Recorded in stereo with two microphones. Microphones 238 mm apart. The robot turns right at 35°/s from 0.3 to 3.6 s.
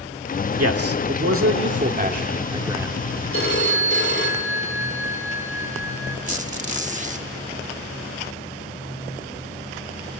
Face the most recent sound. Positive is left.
turn(degrees=-30)  # may be behind; listen again after turning